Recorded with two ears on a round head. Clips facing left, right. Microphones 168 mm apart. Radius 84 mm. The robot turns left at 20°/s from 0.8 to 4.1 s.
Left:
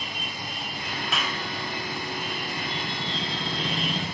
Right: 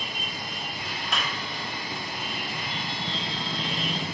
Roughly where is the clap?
Centre.